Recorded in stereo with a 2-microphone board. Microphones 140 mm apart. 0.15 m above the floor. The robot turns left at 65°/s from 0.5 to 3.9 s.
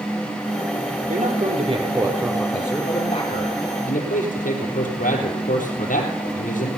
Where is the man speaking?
95° right, 3.5 m; by 6.7 s 85° left, 3.5 m.